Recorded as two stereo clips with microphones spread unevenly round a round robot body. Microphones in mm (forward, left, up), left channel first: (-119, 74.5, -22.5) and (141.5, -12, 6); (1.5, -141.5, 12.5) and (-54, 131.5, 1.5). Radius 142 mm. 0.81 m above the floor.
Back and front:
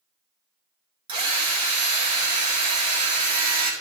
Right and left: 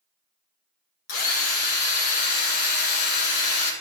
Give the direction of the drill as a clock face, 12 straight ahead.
3 o'clock.